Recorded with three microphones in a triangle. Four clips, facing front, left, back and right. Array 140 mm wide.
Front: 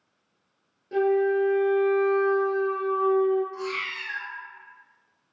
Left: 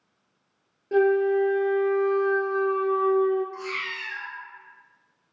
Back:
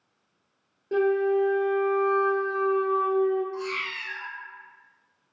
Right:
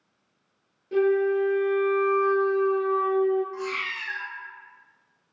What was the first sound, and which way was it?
A flute, 145° left.